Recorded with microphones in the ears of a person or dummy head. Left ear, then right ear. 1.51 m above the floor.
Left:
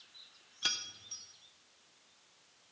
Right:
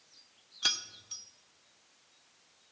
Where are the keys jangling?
15° right (ahead or behind), 0.7 m.